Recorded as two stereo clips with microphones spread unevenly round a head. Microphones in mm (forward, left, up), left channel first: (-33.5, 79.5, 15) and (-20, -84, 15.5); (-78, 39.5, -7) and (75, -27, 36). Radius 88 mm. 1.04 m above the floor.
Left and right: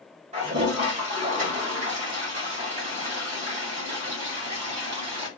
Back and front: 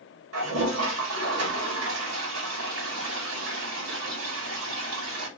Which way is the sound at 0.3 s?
30° right.